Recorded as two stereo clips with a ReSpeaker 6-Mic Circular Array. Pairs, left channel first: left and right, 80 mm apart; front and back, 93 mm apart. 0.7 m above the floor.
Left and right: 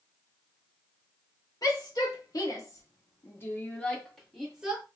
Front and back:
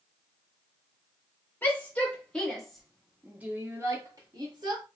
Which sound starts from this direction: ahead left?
A shout, at 1.6 s.